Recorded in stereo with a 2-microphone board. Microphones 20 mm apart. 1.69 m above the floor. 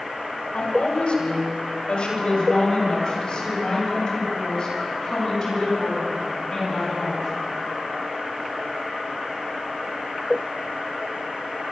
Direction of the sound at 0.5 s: 50° left (ahead or behind).